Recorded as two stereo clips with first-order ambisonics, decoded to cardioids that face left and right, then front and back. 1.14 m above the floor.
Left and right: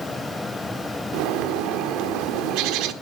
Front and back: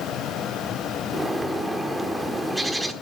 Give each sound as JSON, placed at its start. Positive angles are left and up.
{"t": 1.1, "sound": "a bird", "azimuth_deg": -95, "distance_m": 1.1}